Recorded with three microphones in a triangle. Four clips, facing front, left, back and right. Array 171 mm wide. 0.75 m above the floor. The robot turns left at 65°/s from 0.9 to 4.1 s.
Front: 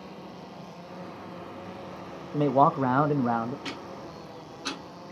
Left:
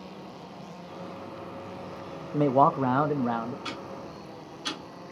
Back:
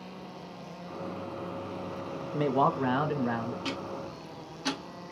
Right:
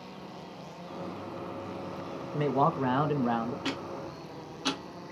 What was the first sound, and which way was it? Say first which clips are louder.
A man speaking: left 5 dB, front 5 dB; 70° left.